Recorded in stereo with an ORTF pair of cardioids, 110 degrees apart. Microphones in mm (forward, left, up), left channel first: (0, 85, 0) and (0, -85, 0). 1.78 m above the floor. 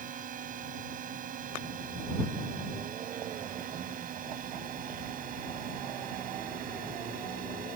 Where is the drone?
55° right; by 7.8 s 60° right.